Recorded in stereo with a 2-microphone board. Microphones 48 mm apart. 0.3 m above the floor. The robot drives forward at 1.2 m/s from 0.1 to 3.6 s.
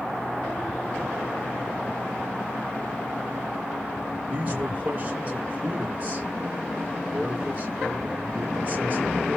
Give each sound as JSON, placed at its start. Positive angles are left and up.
{"t": 4.3, "sound": "a man speaking", "side_deg": -30, "distance_m": 3.0}